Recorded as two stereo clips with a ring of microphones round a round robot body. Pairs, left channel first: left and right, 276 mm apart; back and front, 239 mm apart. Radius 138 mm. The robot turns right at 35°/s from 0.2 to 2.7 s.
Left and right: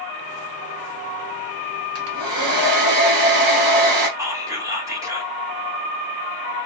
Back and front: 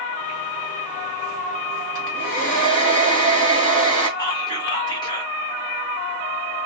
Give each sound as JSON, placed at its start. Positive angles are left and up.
{"t": 1.9, "sound": "a hair dryer", "azimuth_deg": -135, "distance_m": 1.1}
{"t": 4.2, "sound": "whispering", "azimuth_deg": -145, "distance_m": 0.9}